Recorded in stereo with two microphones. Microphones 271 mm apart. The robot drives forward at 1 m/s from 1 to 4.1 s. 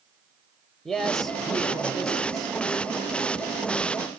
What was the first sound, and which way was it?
A man speaking, centre (ahead or behind).